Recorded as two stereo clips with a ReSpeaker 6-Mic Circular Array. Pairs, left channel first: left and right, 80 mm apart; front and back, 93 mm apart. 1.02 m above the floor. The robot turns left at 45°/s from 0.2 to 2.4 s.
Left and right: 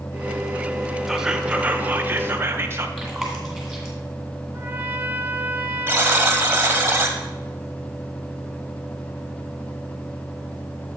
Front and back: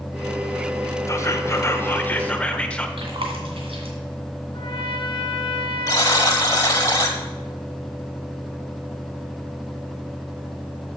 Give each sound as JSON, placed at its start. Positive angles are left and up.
{"t": 1.1, "sound": "whispering", "azimuth_deg": -5, "distance_m": 0.8}
{"t": 3.0, "sound": "chewing", "azimuth_deg": 180, "distance_m": 2.5}
{"t": 4.5, "sound": "a trumpet", "azimuth_deg": -25, "distance_m": 0.8}
{"t": 5.9, "sound": "a buzzer", "azimuth_deg": -35, "distance_m": 1.2}